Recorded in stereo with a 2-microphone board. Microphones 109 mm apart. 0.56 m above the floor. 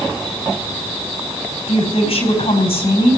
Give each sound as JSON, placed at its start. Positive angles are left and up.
{"t": 1.7, "sound": "a woman speaking", "side_deg": 70, "distance_m": 4.0}